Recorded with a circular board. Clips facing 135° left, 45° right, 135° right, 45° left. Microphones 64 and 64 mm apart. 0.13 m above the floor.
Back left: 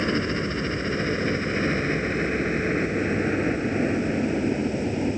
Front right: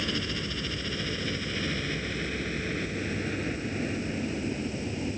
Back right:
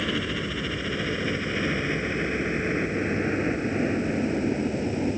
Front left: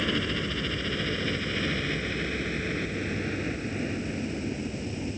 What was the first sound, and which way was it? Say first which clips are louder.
A helicopter: back left 8 dB, back right 1 dB; 140° left.